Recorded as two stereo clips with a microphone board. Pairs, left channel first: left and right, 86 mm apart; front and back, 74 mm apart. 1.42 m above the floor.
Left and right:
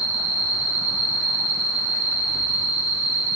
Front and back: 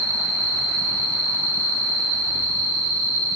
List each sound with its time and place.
0.0 s an insect: 175° left, 2.5 m